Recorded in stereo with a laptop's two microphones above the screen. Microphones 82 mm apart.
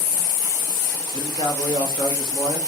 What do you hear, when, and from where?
1.1 s a man speaking: 70° left (ahead or behind), 1.5 m